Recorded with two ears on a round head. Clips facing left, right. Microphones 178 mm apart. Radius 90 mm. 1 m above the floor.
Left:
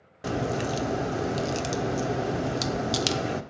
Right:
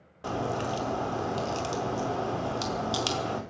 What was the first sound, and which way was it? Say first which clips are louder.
A crack: left 3 dB; 20° left (ahead or behind).